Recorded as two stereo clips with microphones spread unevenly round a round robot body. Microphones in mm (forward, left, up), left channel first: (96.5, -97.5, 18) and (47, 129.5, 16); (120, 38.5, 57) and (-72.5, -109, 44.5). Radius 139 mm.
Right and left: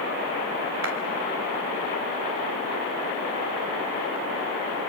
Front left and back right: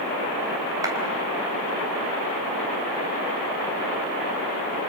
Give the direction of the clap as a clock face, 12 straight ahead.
7 o'clock.